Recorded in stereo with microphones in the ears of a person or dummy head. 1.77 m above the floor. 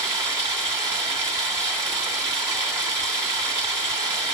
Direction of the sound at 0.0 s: 10° right (ahead or behind).